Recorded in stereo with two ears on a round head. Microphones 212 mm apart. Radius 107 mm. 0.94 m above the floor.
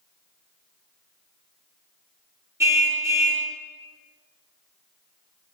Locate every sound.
2.6 s a car horn: 15° right (ahead or behind), 5 m